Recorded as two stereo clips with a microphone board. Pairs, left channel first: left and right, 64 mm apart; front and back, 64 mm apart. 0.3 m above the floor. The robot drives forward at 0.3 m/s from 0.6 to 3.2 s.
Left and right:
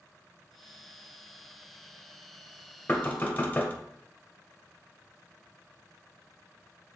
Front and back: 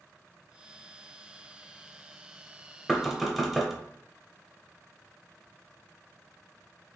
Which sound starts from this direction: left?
Knocking, at 2.9 s.